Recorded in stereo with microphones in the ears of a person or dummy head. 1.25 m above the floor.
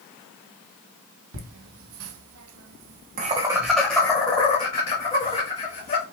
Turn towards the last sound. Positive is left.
turn(degrees=30)  # may be behind; listen again after turning